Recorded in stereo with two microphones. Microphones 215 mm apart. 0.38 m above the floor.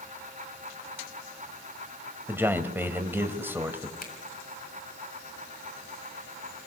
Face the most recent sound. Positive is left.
turn(degrees=40)  # may be behind; listen again after turning